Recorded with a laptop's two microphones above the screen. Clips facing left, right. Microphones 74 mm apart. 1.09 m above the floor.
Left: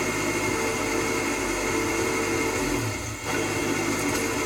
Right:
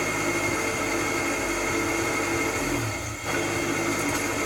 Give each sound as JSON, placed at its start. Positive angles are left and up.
{"t": 0.0, "sound": "an engine running", "side_deg": 0, "distance_m": 1.6}